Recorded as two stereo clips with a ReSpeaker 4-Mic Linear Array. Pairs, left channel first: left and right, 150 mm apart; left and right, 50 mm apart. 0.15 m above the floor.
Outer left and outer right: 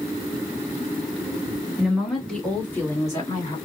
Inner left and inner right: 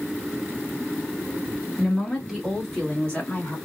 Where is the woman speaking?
5° right (ahead or behind), 1.6 m; by 3.6 s 30° left (ahead or behind), 1.5 m.